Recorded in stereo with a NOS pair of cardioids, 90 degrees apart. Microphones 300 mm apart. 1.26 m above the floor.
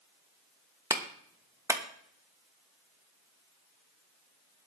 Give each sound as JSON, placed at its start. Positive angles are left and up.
{"t": 0.9, "sound": "a clap", "azimuth_deg": -10, "distance_m": 1.2}